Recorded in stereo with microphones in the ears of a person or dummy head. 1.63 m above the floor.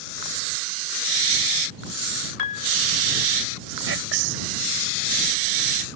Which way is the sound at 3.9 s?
85° right.